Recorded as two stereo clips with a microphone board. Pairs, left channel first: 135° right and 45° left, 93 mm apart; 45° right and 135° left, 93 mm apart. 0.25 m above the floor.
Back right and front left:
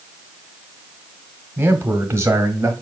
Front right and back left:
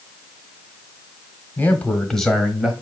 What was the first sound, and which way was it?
A man speaking, straight ahead.